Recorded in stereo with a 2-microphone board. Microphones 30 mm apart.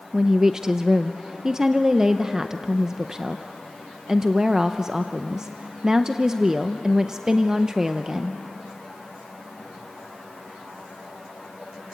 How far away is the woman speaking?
About 0.6 m.